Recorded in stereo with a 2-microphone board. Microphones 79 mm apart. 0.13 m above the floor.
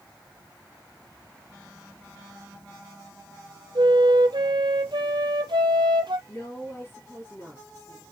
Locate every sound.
3.8 s a flute: 75° right (ahead or behind), 0.7 m
6.3 s a woman speaking: 35° left (ahead or behind), 2.5 m